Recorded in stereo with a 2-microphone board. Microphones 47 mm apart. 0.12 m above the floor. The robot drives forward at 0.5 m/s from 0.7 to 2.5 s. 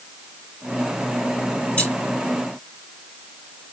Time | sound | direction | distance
1.8 | keys jangling | 25° left (ahead or behind) | 2.5 m